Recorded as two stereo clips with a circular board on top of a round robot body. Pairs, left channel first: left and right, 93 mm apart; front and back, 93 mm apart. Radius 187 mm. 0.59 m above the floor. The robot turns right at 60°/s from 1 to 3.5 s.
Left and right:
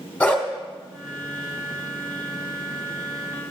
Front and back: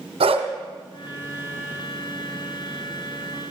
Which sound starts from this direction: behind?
A dog barking, at 0.2 s.